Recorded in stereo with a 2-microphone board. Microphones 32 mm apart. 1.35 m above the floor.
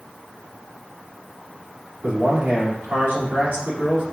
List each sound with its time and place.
2.0 s a man speaking: 55° right (ahead or behind), 2 m